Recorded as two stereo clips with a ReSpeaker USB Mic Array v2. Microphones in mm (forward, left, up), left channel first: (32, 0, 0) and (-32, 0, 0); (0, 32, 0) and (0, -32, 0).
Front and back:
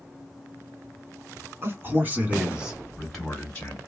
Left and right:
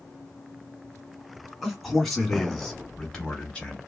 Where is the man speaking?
Straight behind, 1.3 m; by 3.8 s 20° left, 1.1 m.